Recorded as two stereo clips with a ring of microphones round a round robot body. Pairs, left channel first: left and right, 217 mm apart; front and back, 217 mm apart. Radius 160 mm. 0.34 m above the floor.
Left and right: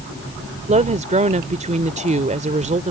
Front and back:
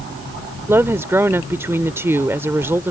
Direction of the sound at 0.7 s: 110° right.